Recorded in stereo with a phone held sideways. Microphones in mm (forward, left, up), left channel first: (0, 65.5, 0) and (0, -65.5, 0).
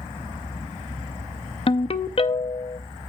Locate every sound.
1.7 s a ringtone: 45° left (ahead or behind), 0.5 m